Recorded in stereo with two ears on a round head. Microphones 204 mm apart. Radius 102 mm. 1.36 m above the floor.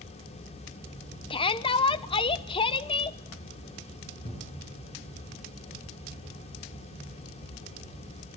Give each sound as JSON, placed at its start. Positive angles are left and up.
{"t": 1.3, "sound": "a shout", "side_deg": 25, "distance_m": 1.0}
{"t": 4.2, "sound": "a cupboard door", "side_deg": 35, "distance_m": 7.0}